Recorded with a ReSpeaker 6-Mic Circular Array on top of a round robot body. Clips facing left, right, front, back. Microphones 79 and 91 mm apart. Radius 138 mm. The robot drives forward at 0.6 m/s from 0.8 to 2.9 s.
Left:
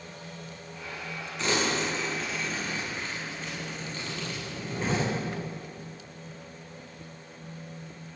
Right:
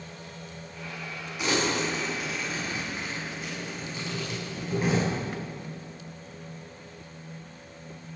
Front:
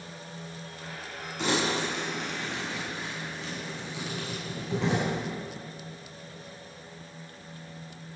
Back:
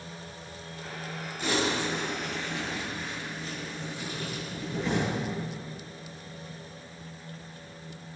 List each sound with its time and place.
1.4 s crumpling: 10° right, 8 m